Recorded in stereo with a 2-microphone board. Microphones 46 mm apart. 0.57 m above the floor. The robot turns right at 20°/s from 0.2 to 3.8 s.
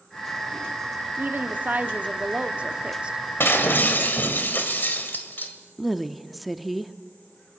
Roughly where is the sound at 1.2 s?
Right.